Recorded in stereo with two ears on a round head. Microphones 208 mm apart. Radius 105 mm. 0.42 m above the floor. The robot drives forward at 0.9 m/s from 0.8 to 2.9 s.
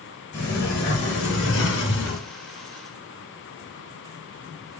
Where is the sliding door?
45° left (ahead or behind), 4.5 m; by 2.2 s 60° left (ahead or behind), 3.5 m.